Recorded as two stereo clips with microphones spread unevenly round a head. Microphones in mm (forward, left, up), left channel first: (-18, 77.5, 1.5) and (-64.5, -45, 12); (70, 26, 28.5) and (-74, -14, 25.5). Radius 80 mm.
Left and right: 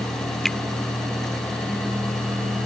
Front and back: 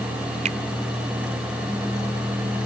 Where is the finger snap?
155° left.